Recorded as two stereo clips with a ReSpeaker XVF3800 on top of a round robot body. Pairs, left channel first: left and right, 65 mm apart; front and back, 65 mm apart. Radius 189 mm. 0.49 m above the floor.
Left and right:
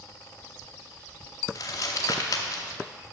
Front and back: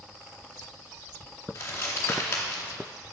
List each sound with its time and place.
1.6 s crumpling: 55° left, 0.7 m